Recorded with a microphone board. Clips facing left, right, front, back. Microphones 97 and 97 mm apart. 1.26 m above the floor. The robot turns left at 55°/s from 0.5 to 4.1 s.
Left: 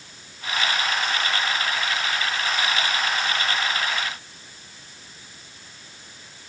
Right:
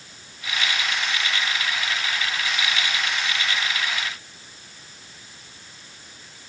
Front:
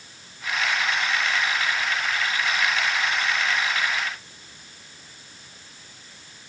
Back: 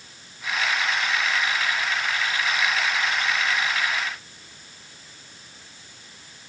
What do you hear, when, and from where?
Only background noise.